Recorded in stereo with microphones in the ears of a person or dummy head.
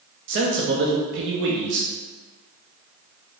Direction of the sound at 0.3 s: 60° right (ahead or behind).